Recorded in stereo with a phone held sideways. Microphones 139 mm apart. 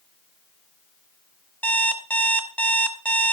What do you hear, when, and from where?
1.6 s an alarm clock: 5° left (ahead or behind), 1.4 m